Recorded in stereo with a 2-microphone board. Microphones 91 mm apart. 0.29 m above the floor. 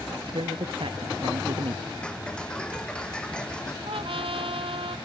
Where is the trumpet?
80° right.